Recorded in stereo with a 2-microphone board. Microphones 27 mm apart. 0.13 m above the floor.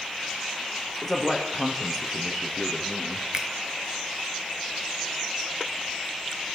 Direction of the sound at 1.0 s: 5° left (ahead or behind).